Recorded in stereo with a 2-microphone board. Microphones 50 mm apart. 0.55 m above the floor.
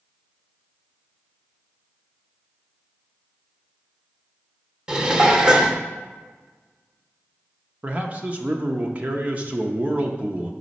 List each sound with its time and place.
4.9 s dishes clattering: 20° right (ahead or behind), 0.7 m
7.8 s a man speaking: 35° right (ahead or behind), 0.7 m